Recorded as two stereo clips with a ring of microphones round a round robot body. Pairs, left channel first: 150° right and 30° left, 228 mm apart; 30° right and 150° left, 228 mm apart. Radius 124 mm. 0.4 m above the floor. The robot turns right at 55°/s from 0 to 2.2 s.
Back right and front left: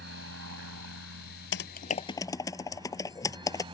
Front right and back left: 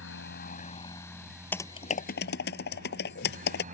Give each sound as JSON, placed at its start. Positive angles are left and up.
{"t": 0.0, "sound": "a helicopter", "azimuth_deg": -5}
{"t": 1.5, "sound": "typing on a keyboard", "azimuth_deg": -110}